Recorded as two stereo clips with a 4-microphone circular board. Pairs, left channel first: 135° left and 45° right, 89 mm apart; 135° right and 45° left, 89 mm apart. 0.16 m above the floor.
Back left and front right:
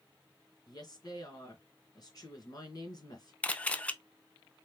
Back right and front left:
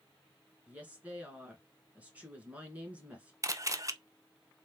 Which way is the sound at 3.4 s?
65° left.